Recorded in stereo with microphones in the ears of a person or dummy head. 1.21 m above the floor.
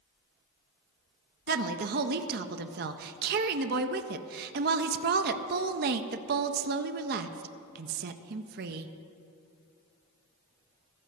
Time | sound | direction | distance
1.5 | a woman speaking | 50° right (ahead or behind) | 0.5 m